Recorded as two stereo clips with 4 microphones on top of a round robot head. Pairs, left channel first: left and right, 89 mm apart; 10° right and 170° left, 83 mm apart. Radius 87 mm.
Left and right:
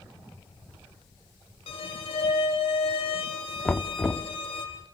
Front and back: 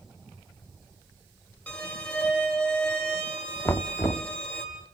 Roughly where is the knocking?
Ahead left.